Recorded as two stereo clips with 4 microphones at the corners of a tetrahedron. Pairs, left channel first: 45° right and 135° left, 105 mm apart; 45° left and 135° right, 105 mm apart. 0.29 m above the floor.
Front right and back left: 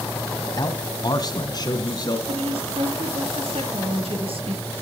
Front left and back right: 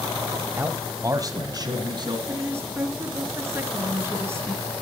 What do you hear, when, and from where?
0.6 s a man speaking: 75° right, 1.7 m; by 2.2 s 95° right, 3 m
2.3 s a woman speaking: 160° left, 5.5 m